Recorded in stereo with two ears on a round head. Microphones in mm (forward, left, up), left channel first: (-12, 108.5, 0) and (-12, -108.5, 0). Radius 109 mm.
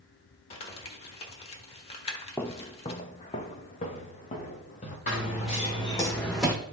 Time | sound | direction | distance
0.5 | crumpling | 25° left (ahead or behind) | 1.2 m
2.4 | footsteps | 10° left (ahead or behind) | 0.6 m
5.1 | running footsteps | 30° left (ahead or behind) | 3 m